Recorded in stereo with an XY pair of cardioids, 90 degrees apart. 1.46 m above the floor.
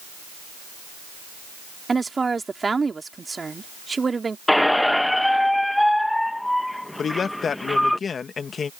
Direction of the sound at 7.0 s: 50° left.